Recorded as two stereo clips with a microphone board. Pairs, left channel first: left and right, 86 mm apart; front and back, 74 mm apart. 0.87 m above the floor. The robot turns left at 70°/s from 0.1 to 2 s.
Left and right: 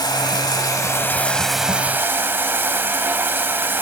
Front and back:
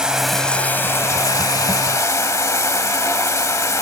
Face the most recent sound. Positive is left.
turn(degrees=-30)